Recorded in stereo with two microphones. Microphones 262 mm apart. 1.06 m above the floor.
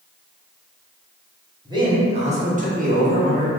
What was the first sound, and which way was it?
A man speaking, 15° right (ahead or behind).